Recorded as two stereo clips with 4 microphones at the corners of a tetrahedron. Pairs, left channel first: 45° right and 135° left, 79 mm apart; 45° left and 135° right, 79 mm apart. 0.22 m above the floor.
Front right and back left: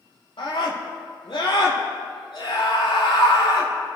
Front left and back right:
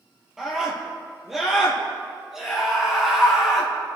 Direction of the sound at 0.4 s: 50° right.